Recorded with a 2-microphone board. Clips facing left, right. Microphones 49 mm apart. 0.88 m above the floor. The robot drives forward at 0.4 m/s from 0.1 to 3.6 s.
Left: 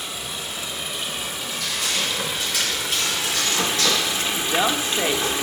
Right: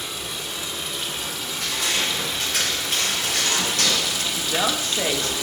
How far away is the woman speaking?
About 0.9 m.